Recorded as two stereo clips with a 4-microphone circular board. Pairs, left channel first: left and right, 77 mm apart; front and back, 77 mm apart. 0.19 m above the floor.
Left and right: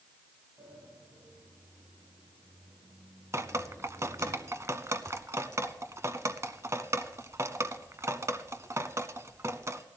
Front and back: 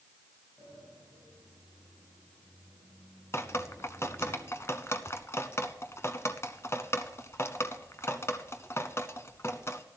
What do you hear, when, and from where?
0.6 s a sliding door: 85° right, 9 m
3.3 s dripping: 45° right, 0.7 m